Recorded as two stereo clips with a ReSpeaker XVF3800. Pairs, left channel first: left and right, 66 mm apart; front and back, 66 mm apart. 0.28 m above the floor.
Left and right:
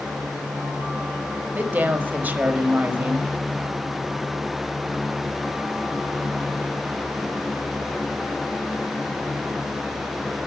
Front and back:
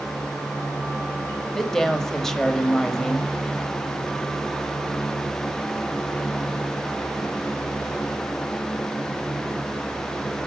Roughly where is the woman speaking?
Right.